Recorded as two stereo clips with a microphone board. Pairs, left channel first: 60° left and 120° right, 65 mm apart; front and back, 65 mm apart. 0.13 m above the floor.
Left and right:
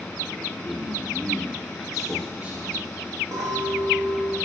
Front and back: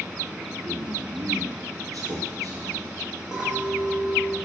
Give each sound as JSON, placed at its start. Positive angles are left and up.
{"t": 0.6, "sound": "a man speaking", "azimuth_deg": 135, "distance_m": 2.5}
{"t": 3.3, "sound": "a clink", "azimuth_deg": -95, "distance_m": 3.0}